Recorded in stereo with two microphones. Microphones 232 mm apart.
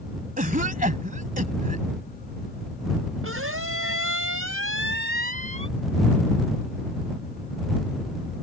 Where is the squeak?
70° right (ahead or behind).